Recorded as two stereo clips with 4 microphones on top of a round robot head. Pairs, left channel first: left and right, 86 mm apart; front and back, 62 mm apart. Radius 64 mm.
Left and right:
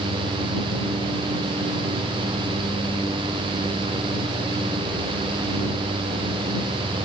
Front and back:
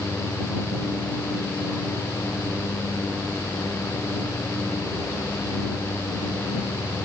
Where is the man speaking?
I don't hear a man speaking.